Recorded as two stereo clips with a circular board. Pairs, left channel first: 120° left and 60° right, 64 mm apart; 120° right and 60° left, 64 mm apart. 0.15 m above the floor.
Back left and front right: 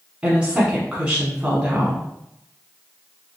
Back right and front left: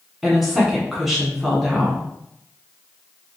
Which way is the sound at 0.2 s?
25° right.